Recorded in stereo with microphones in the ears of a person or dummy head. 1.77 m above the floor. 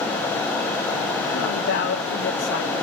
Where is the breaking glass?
No breaking glass in this recording.